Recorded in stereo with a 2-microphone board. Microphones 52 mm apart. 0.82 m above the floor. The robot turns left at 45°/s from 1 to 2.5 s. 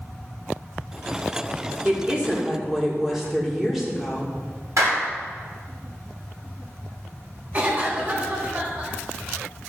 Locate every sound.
1.9 s a woman speaking: 35° right (ahead or behind), 1.7 m; by 4.3 s 5° right (ahead or behind), 1.7 m
4.8 s a clap: 75° right (ahead or behind), 2.5 m
7.5 s a cough: 35° right (ahead or behind), 2 m